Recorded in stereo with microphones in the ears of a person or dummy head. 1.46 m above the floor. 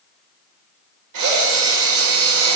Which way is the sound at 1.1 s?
70° right (ahead or behind).